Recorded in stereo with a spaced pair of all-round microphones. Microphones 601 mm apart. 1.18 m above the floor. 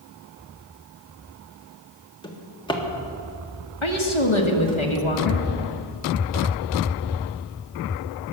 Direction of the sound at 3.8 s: 55° left (ahead or behind).